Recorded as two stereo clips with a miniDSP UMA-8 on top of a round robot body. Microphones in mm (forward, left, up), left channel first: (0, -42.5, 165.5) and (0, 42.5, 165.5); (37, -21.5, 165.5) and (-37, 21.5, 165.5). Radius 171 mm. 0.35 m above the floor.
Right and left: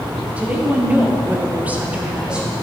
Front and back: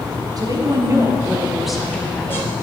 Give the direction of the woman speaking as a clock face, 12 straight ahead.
7 o'clock.